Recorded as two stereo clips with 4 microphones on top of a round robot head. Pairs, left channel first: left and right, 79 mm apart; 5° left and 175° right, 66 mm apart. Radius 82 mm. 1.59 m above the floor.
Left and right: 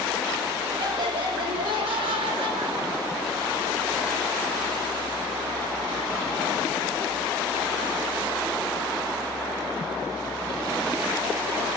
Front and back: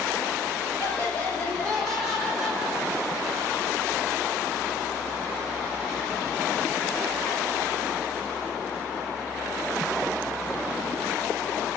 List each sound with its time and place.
0.8 s laughter: 65° right, 2.5 m; by 3.3 s 100° right, 1.7 m